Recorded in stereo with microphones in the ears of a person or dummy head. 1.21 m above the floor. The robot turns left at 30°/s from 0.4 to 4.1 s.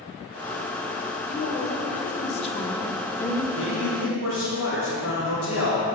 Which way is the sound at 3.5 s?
75° left (ahead or behind).